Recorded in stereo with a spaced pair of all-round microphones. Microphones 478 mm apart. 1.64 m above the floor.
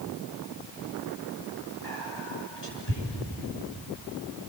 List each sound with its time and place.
1.8 s whispering: 55° left (ahead or behind), 8 m